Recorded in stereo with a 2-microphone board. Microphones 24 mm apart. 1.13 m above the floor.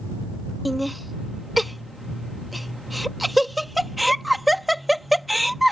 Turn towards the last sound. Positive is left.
turn(degrees=0)  # may be behind; listen again after turning